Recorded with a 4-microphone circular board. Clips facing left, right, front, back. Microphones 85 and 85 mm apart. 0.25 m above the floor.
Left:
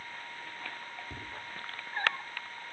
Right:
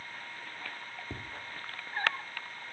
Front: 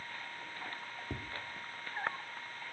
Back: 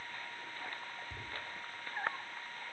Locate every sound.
1.1 s tapping: 35° right, 5.5 m